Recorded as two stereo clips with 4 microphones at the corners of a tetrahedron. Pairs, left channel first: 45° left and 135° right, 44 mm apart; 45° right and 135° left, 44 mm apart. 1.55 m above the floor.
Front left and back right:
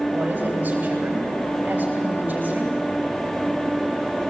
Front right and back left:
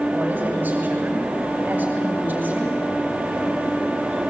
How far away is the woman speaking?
About 9 m.